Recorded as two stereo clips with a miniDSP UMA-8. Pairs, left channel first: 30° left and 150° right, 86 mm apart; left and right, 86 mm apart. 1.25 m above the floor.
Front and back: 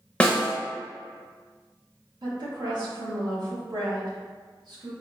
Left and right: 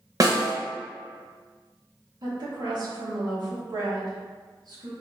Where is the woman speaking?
120° right, 1.6 m.